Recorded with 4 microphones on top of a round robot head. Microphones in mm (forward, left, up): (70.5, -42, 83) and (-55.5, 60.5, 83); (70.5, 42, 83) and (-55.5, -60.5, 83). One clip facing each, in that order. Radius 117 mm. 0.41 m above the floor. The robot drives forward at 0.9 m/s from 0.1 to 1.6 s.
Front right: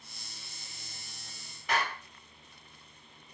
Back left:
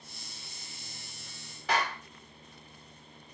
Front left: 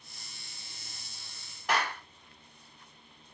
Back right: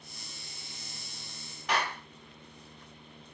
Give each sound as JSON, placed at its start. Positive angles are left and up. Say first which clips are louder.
{"t": 1.7, "sound": "a clap", "louder": "back left 2 dB, front left 1 dB", "azimuth_deg": 125, "distance_m": 6.5}